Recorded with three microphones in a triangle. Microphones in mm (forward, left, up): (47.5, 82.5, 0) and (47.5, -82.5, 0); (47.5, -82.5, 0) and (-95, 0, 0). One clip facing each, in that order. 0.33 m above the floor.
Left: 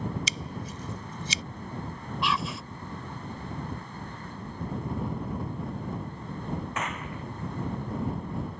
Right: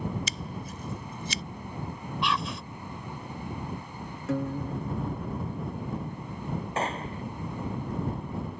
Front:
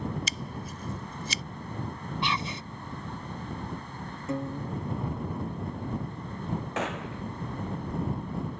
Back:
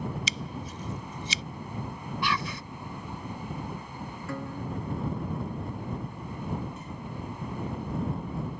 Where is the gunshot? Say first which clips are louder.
Right 3 dB, front 6 dB; 30° right.